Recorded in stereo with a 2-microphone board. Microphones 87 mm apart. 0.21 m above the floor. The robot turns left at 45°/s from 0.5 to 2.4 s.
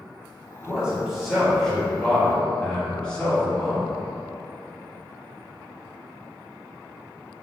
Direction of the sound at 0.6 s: 15° right (ahead or behind).